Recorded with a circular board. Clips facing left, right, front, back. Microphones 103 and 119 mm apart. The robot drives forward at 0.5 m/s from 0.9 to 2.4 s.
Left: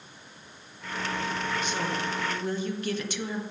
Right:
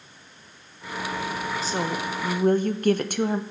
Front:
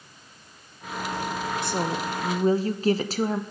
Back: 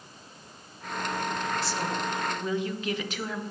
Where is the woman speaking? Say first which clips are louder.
Right 3 dB, front 3 dB; 35° right, 1.0 m; by 3.4 s 50° right, 0.7 m.